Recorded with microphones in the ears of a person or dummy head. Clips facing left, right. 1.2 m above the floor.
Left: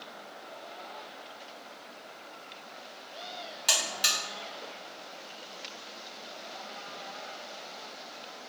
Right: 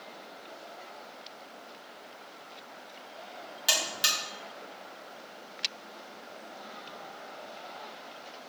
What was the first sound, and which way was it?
A buzzer, 10° right (ahead or behind).